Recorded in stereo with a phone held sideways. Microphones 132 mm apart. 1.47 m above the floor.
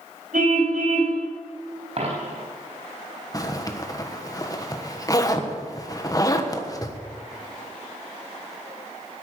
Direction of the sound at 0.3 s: 75° right (ahead or behind).